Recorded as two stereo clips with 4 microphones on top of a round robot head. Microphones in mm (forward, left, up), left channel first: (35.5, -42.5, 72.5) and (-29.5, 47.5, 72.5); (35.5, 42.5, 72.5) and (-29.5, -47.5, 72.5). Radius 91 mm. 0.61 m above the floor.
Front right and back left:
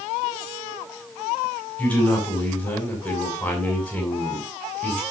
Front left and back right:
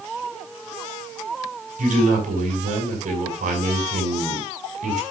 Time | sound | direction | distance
1.8 | a man speaking | 135° right | 6 m